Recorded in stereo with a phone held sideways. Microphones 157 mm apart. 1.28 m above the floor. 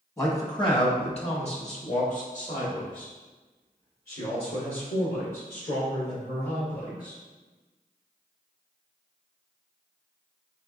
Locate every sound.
0.2 s a man speaking: 20° left (ahead or behind), 1.0 m; by 7.1 s 75° left (ahead or behind), 4 m